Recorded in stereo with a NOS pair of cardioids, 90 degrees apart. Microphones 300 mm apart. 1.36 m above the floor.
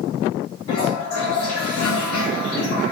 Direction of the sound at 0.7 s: 70° left.